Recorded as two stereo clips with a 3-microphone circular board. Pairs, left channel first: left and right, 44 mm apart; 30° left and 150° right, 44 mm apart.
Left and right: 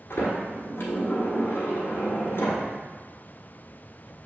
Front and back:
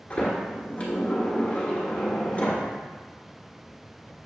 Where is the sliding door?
85° left, 1.3 m.